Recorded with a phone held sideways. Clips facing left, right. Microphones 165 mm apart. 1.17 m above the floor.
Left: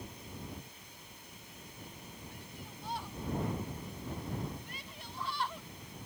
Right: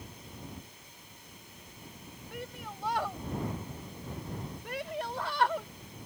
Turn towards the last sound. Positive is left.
turn(degrees=-80)